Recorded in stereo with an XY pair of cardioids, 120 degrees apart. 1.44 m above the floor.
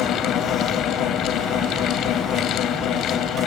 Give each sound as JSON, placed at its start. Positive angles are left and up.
{"t": 0.0, "sound": "a fan", "azimuth_deg": 65}